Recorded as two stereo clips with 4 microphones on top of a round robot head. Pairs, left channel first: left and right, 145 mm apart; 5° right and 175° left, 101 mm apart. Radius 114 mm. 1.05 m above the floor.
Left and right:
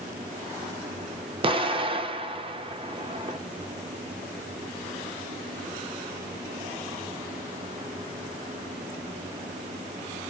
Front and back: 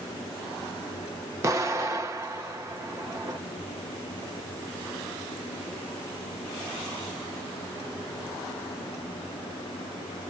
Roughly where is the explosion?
Behind right.